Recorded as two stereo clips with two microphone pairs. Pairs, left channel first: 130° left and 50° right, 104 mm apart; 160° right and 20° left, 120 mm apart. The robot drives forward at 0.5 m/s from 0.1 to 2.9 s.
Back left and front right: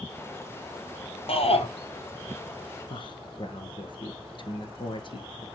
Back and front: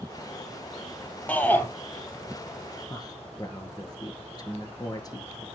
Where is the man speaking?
150° left, 1.9 m.